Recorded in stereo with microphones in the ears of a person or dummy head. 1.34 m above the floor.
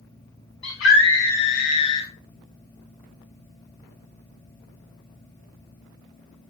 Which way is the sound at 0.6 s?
65° left (ahead or behind).